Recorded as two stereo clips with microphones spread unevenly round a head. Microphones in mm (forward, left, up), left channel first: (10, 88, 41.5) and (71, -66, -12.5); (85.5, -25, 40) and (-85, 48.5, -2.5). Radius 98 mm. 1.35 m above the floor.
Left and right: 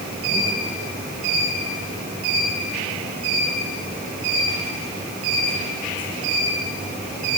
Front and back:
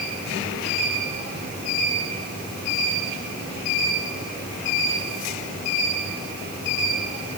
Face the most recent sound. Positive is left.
No sound to turn to.